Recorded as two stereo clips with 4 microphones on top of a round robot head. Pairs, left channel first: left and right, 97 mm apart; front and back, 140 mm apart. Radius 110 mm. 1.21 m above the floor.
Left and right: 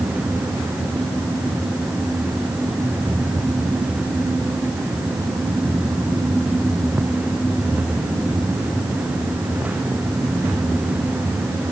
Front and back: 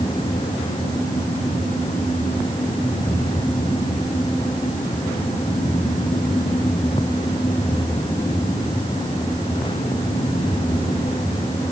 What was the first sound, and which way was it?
Only background noise.